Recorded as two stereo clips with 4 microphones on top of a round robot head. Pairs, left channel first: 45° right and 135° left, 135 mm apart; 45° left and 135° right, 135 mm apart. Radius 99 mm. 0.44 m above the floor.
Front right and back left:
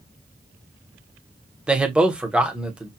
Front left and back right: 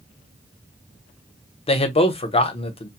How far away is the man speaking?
About 1.1 m.